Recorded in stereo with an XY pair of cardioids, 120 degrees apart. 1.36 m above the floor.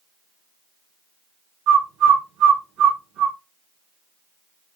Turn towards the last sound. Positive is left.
turn(degrees=-70)